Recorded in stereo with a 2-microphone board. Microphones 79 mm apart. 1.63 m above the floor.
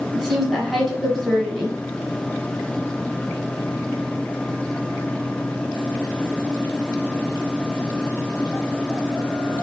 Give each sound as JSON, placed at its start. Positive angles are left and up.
{"t": 0.1, "sound": "a woman speaking", "side_deg": 0, "distance_m": 1.7}